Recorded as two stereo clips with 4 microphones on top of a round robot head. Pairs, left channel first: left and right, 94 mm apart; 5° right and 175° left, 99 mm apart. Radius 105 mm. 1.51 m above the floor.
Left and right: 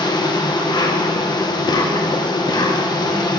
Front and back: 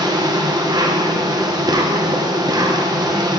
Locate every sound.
0.0 s an insect: 130° left, 1.2 m